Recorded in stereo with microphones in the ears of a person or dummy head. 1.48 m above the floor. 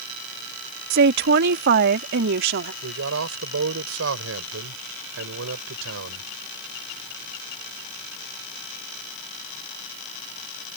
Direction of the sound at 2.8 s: 85° right.